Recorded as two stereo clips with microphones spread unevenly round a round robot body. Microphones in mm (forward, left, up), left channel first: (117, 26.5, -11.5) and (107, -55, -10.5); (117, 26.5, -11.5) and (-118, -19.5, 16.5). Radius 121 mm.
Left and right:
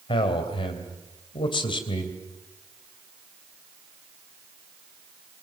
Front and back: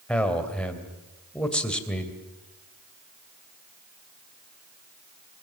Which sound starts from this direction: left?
A man speaking, at 0.1 s.